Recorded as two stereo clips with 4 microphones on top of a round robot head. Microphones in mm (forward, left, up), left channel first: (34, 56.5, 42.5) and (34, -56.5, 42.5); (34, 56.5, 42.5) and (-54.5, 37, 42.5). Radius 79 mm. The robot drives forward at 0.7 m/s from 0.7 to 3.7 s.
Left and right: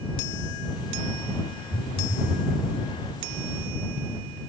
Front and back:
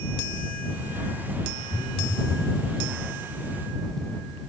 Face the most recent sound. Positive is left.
turn(degrees=115)